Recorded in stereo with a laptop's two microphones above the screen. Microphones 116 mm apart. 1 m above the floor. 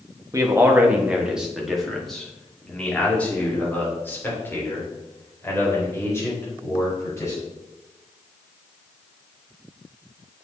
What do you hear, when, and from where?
0.3 s a man speaking: 25° right (ahead or behind), 1.0 m; by 7.5 s 25° left (ahead or behind), 4 m